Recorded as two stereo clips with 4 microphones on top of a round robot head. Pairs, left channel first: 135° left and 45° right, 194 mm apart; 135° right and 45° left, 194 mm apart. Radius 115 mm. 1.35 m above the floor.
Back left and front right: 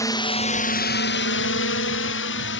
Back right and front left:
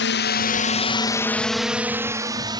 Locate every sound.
0.0 s a drone: 150° right; by 2.6 s 115° left